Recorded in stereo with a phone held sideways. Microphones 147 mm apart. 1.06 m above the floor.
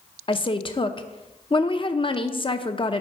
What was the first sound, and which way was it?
A woman speaking, 35° left (ahead or behind).